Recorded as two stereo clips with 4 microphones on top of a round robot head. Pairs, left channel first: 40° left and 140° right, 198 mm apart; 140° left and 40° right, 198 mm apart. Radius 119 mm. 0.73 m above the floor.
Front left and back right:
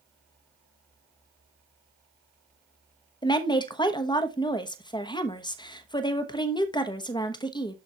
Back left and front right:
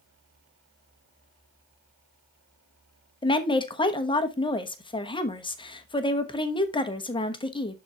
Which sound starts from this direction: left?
A woman speaking, at 3.2 s.